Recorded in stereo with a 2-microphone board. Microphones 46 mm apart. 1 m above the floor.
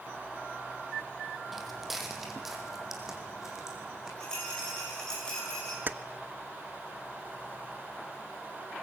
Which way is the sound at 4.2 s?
15° left (ahead or behind).